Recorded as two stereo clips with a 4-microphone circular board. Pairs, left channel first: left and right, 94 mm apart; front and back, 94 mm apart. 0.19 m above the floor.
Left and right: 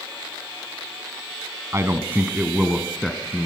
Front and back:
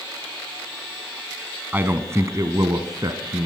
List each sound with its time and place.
1.7 s a man speaking: 125° right, 1.5 m; by 3.5 s 165° left, 1.9 m